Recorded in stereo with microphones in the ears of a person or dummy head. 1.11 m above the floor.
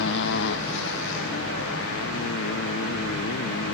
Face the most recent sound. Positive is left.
turn(degrees=70)  # may be behind; listen again after turning